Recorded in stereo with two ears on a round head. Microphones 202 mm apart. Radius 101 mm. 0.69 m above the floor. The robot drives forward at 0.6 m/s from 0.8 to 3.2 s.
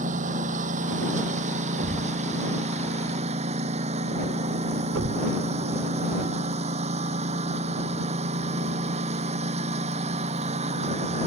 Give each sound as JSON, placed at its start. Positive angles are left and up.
{"t": 0.0, "sound": "a lawn mower", "side_deg": -40}
{"t": 1.8, "sound": "a thud", "side_deg": -50}